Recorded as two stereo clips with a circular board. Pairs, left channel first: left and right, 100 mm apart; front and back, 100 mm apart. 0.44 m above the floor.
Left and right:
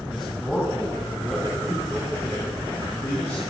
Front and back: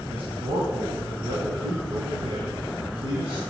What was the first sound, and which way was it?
A man speaking, straight behind.